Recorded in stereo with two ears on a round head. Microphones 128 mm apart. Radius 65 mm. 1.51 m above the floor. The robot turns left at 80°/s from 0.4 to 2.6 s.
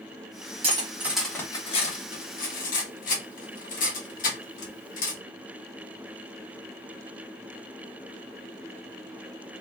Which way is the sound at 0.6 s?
40° right (ahead or behind).